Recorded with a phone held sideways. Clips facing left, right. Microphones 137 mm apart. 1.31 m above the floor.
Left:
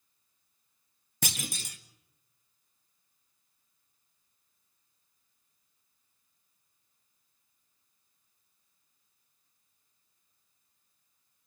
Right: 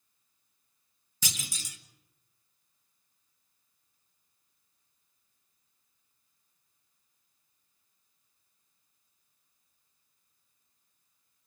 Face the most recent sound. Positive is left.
turn(degrees=55)  # may be behind; listen again after turning